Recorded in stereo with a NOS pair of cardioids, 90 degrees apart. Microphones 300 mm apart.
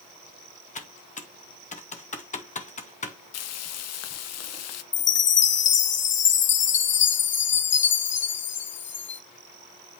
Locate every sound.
0.8 s typing on a keyboard: 25° left, 1.7 m
3.3 s frying: 60° left, 0.8 m
4.9 s a chime: 40° left, 0.7 m